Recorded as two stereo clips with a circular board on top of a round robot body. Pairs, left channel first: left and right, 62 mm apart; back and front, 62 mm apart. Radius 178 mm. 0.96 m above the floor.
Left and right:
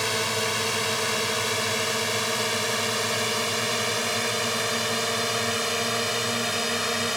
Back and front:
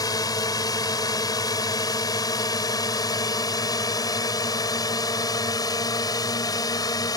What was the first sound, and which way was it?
A drone, straight behind.